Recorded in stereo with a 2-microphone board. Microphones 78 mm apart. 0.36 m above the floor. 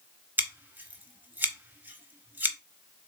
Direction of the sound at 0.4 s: 25° right (ahead or behind).